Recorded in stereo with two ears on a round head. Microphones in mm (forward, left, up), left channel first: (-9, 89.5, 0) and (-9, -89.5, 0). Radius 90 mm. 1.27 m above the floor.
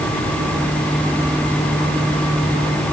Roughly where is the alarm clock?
I don't hear an alarm clock.